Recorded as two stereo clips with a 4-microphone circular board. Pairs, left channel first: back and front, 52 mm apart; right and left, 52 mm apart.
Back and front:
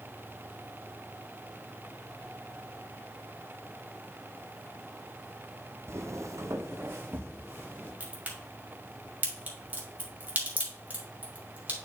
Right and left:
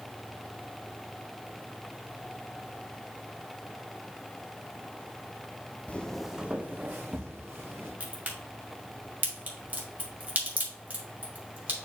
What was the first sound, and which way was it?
Footsteps, 30° right.